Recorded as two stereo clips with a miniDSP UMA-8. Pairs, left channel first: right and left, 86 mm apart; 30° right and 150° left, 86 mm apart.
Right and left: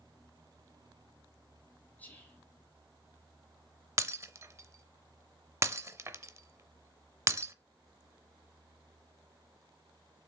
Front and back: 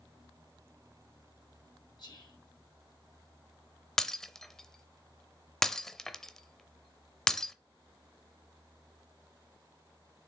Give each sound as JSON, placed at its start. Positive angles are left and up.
{"t": 2.0, "sound": "whispering", "azimuth_deg": -20, "distance_m": 3.0}
{"t": 4.0, "sound": "breaking glass", "azimuth_deg": 50, "distance_m": 0.6}